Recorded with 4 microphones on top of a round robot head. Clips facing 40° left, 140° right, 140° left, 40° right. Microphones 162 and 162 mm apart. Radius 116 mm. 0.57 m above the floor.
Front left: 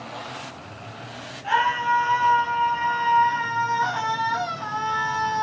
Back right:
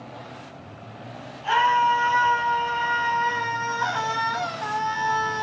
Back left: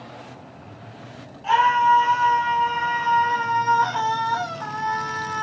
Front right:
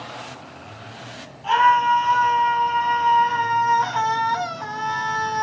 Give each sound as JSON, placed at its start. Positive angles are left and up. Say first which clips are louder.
{"t": 1.4, "sound": "a scream", "louder": "back right 2 dB, front right 1 dB", "azimuth_deg": -140, "distance_m": 6.0}